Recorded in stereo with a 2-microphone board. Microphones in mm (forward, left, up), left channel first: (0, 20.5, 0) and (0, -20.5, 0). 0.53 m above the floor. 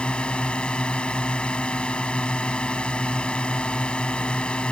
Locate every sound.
0.0 s a drone: 25° left (ahead or behind)